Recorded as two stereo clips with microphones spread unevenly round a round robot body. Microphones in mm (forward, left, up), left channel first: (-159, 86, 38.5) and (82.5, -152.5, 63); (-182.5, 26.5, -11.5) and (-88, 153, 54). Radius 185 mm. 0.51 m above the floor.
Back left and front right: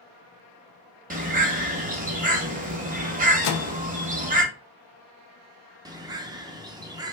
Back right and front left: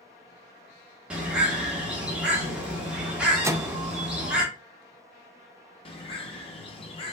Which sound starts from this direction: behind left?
A microwave, at 3.4 s.